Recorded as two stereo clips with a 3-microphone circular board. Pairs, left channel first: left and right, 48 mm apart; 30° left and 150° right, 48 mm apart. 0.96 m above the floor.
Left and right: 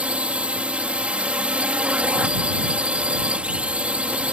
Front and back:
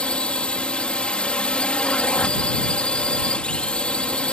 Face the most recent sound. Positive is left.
turn(degrees=-30)